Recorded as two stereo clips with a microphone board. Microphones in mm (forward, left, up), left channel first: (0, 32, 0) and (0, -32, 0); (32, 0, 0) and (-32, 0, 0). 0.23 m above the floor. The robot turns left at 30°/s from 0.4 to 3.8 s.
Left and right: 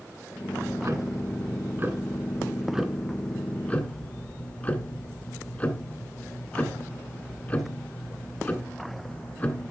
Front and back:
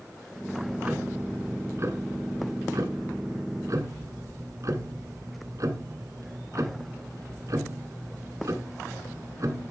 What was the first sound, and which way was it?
Ticking, 105° right.